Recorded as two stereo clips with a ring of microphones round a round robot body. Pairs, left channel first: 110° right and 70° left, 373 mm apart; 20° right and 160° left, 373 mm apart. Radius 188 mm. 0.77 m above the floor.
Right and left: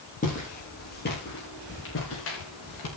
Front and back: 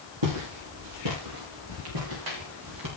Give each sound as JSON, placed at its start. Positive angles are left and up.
{"t": 0.2, "sound": "footsteps", "azimuth_deg": 180, "distance_m": 9.5}